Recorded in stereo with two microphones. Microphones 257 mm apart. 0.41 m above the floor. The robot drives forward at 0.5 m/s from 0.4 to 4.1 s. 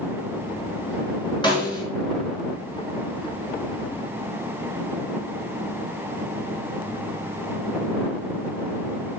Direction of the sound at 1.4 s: 20° left (ahead or behind).